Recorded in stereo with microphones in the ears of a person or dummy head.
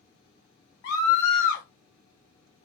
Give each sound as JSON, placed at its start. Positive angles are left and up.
{"t": 0.8, "sound": "a scream", "side_deg": 45, "distance_m": 0.6}